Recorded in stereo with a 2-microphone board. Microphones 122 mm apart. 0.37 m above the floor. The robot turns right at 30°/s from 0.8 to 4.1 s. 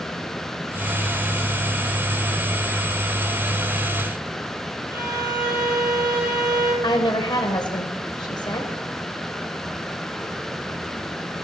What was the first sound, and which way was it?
A violin, 10° right (ahead or behind).